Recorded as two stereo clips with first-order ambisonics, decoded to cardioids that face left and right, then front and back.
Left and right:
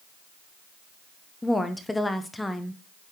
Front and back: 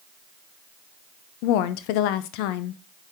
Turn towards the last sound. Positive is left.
turn(degrees=5)